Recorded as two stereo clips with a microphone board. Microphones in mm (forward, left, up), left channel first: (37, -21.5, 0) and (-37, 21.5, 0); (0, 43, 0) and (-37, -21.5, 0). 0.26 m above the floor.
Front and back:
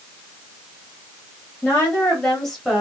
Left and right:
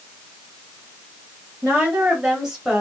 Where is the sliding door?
No sliding door in this recording.